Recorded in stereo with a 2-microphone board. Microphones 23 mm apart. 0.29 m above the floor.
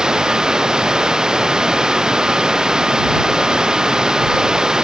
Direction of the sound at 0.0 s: 35° right (ahead or behind).